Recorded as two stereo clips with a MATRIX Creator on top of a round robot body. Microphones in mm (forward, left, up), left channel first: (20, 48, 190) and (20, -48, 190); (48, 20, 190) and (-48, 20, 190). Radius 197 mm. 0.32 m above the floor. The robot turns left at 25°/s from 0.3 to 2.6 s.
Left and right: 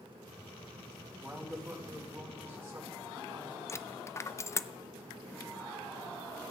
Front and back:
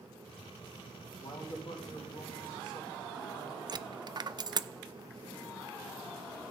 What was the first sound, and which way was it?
A man speaking, 10° left.